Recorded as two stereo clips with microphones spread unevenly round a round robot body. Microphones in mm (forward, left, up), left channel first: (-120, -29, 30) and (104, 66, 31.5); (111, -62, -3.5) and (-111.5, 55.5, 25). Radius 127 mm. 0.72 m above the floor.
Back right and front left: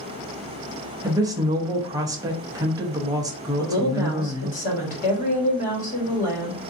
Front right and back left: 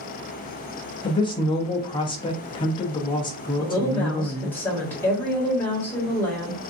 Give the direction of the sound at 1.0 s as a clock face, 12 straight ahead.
1 o'clock.